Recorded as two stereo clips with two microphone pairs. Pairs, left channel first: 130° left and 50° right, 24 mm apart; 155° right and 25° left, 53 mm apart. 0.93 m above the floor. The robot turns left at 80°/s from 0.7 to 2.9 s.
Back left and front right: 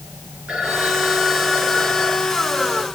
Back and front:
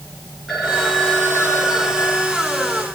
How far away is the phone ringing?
About 8 m.